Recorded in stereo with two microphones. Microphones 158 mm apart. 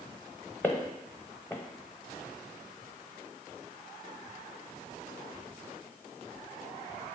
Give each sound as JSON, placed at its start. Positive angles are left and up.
{"t": 0.6, "sound": "footsteps", "side_deg": 15, "distance_m": 0.7}